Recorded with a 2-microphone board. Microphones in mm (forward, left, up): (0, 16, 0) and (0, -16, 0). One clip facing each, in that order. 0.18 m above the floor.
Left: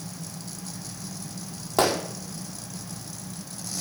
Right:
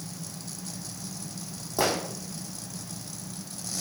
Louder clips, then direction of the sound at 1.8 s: Left 4 dB; 75° left (ahead or behind).